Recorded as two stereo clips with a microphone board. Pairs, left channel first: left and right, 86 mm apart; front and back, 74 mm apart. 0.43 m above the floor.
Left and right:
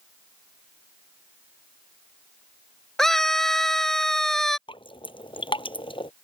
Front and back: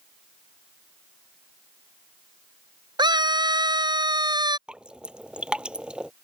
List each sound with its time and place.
3.0 s a scream: 175° left
4.7 s dripping: 105° left